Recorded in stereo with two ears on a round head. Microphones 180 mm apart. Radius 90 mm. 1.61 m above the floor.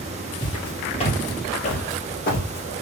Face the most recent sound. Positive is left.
turn(degrees=50)  # may be behind; listen again after turning